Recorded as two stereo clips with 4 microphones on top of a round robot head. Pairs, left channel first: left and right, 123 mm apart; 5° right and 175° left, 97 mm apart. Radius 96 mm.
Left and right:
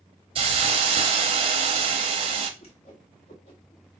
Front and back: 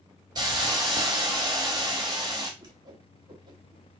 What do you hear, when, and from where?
0.3 s a hiss: 125° right, 0.6 m
2.6 s a whoosh: 125° left, 1.7 m